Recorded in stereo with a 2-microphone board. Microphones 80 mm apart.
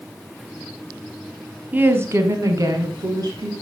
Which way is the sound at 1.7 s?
20° right (ahead or behind).